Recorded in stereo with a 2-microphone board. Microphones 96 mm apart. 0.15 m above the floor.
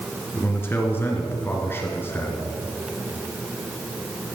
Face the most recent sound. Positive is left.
turn(degrees=25)  # may be behind; listen again after turning